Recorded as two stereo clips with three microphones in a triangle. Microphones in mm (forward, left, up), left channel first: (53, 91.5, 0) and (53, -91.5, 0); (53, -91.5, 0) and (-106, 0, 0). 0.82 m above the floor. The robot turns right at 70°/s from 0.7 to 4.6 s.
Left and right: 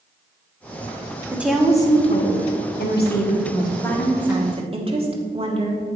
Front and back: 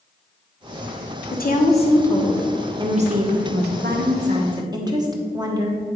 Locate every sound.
1.3 s a woman speaking: 15° right, 1.3 m; by 5.8 s 145° right, 1.3 m